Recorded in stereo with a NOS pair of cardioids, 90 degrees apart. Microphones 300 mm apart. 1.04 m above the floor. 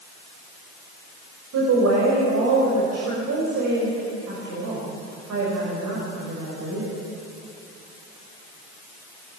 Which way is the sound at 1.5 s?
65° right.